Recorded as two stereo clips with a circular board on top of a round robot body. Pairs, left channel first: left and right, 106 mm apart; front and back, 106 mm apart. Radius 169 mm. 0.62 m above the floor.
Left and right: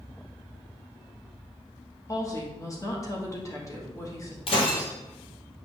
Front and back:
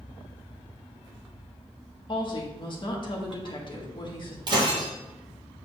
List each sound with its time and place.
2.1 s a woman speaking: 35° left, 1.7 m
4.5 s breaking glass: 130° left, 1.3 m